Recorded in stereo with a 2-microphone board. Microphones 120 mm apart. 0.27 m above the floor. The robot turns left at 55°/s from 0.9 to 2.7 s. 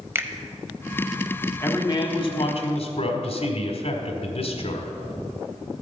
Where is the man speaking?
150° left, 1.5 m; by 4.9 s 90° left, 1.5 m.